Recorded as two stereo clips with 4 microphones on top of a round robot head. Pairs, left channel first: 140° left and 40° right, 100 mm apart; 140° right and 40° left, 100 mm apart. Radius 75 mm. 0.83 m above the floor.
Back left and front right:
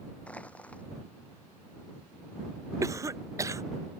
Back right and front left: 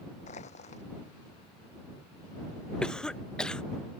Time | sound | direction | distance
0.3 | crushing | 145° right | ?
2.8 | a cough | 65° right | ?